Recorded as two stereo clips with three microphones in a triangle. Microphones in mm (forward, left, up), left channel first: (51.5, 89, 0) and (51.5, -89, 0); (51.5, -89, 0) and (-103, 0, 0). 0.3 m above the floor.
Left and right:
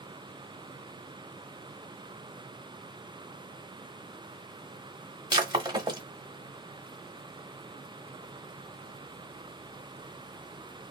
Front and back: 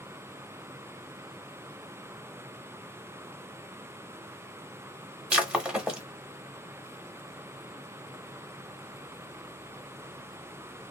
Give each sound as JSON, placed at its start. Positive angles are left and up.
{"t": 5.3, "sound": "breaking glass", "azimuth_deg": -130, "distance_m": 0.9}